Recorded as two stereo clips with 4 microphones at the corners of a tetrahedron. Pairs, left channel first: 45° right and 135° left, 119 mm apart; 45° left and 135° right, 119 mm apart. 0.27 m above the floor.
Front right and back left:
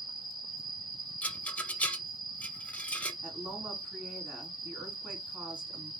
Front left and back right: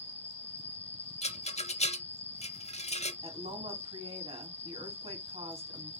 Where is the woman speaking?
145° right, 2.5 m.